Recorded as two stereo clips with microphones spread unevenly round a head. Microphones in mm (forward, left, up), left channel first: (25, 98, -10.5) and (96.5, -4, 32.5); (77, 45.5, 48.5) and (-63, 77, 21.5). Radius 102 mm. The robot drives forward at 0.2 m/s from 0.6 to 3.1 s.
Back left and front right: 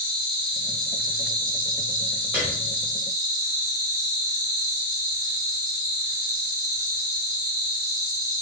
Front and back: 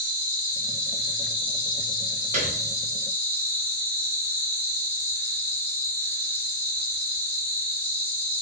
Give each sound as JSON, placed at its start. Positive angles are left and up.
{"t": 0.0, "sound": "an insect", "azimuth_deg": -55, "distance_m": 1.1}
{"t": 2.3, "sound": "a piano", "azimuth_deg": -140, "distance_m": 0.5}